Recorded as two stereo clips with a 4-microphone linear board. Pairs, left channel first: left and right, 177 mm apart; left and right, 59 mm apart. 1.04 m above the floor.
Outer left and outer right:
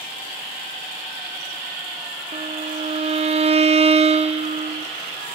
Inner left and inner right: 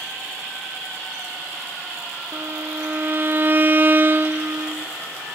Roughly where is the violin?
Right.